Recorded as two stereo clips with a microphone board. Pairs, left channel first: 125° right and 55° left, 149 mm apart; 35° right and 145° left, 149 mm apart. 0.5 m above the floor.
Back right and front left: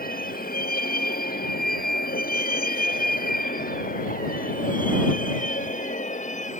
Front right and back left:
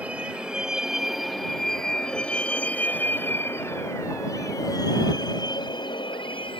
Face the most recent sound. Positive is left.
turn(degrees=-90)